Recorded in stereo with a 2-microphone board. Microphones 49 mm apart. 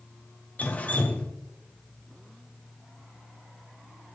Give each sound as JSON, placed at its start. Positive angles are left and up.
{"t": 0.6, "sound": "dripping", "side_deg": 30, "distance_m": 1.0}